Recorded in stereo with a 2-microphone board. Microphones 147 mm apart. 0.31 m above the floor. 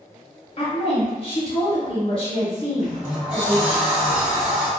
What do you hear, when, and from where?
0.6 s a woman speaking: 40° left (ahead or behind), 1.1 m
2.8 s a sliding door: 10° right (ahead or behind), 1.7 m